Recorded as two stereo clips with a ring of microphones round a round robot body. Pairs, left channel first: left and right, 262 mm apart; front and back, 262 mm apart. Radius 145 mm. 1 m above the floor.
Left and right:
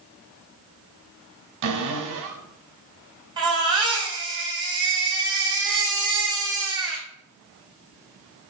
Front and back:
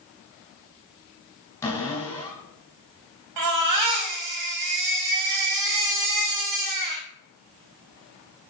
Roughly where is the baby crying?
Behind.